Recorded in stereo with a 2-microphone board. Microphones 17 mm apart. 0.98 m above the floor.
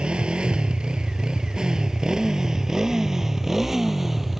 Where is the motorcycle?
75° right (ahead or behind); by 4.4 s 15° right (ahead or behind).